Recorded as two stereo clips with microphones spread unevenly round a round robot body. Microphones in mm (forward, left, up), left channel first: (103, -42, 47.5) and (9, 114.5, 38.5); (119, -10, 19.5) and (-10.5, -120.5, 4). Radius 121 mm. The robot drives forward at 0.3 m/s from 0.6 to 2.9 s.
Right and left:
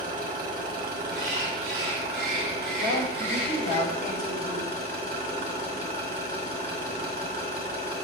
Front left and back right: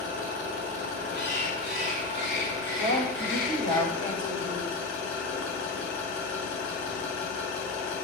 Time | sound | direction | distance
0.0 | an engine running | 80° left | 5 m
1.1 | a bird | 120° left | 5.5 m
2.8 | a woman speaking | 175° right | 4 m